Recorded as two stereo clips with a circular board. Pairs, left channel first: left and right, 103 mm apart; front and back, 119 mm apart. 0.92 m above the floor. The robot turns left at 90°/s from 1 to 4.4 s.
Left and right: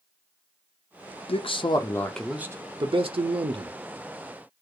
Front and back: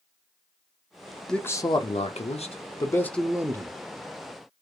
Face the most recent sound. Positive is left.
turn(degrees=165)